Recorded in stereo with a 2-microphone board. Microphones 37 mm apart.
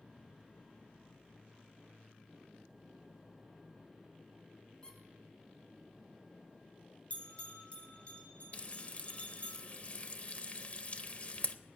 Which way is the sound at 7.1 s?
35° left (ahead or behind).